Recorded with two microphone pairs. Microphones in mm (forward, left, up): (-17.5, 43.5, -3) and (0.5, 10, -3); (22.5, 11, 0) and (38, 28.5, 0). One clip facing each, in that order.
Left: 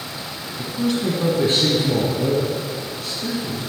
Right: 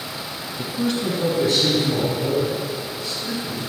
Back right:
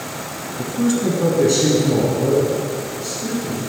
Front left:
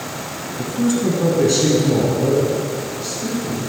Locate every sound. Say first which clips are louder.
0.6 s a man speaking: left 2 dB, even; 70° right, 1.0 m; by 3.6 s 120° left, 4.5 m